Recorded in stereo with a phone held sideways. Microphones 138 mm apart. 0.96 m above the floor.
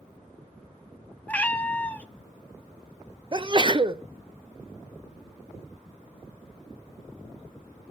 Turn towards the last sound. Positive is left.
turn(degrees=-35)  # may be behind; listen again after turning